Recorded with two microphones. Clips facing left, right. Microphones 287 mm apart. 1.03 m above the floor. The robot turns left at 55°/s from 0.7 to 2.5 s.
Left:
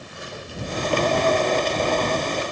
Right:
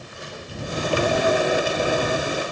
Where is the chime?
I don't hear a chime.